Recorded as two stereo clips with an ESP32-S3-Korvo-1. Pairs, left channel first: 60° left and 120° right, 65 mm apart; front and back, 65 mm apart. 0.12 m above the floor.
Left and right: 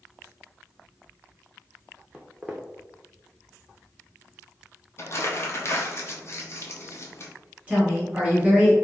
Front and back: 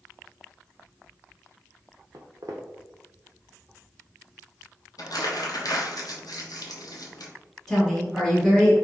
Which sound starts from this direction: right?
A woman speaking, at 7.7 s.